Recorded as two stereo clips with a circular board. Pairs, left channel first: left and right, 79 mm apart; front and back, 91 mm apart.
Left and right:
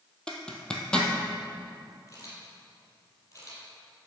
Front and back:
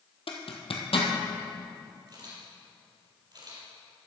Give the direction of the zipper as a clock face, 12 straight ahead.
12 o'clock.